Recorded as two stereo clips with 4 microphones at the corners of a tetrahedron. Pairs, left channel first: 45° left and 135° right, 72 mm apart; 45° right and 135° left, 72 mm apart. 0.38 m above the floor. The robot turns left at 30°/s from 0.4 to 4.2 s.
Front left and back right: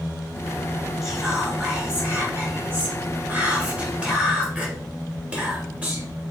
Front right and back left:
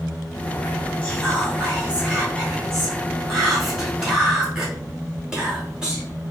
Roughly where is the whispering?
Ahead right.